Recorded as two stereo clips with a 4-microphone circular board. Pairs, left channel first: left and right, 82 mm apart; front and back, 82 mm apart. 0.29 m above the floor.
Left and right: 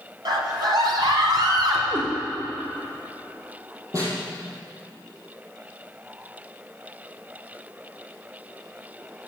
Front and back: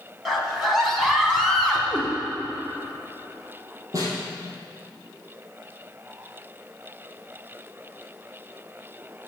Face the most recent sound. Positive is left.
turn(degrees=-135)